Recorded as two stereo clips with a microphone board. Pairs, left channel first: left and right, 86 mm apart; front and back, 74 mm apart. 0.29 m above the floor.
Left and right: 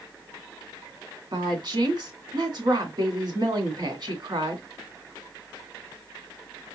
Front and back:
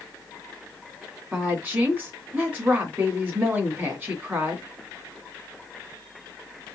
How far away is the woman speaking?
About 2 m.